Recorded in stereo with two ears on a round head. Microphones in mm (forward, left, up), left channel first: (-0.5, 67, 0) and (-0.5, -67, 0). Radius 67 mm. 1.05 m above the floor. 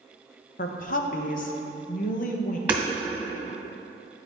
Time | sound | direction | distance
0.6 | a woman speaking | 60° left (ahead or behind) | 0.7 m
2.7 | hammering | 10° right (ahead or behind) | 1.8 m